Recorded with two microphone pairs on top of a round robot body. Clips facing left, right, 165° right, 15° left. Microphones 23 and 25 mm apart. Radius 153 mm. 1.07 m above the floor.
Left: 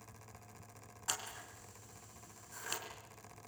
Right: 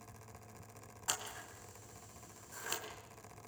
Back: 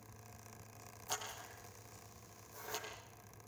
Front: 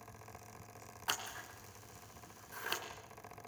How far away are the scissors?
About 3 m.